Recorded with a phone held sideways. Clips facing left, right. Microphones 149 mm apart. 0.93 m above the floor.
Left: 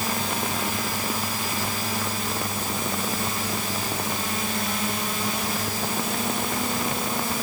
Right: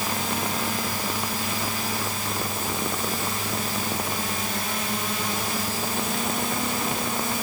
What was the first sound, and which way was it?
Only background noise.